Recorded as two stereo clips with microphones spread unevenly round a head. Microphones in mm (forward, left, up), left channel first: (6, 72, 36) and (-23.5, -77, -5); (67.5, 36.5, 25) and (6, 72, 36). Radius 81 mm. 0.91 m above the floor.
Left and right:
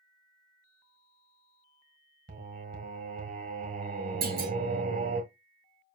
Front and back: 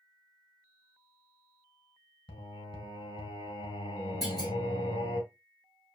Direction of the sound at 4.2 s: 115° right.